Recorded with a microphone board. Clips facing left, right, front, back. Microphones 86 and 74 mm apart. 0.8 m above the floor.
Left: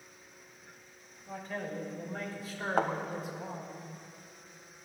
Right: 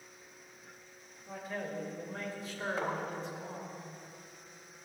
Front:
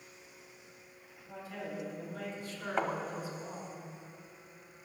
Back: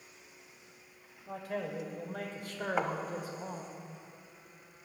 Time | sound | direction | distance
1.3 | a man speaking | 175° right | 3 m
2.8 | a thud | 95° left | 1.1 m